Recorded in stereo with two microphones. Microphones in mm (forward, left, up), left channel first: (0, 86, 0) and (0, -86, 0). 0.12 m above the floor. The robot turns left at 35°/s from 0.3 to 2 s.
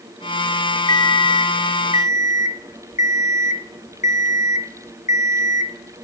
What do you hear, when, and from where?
0.9 s an alarm clock: 150° left, 0.8 m; by 6.0 s 110° left, 0.8 m